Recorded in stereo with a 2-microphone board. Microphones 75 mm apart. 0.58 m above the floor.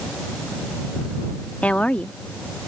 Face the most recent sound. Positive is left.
turn(degrees=20)  # may be behind; listen again after turning